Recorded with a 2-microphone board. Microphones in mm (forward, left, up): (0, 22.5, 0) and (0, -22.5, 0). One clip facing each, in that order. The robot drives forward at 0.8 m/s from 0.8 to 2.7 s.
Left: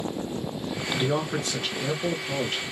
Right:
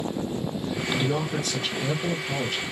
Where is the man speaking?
35° left (ahead or behind), 1.4 m; by 2.6 s 20° left (ahead or behind), 2.5 m.